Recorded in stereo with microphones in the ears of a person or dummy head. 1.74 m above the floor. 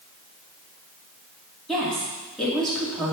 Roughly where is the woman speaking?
Centre.